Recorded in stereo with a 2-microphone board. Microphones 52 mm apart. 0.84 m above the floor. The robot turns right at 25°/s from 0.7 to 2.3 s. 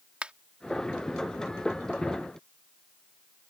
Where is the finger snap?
25° right (ahead or behind).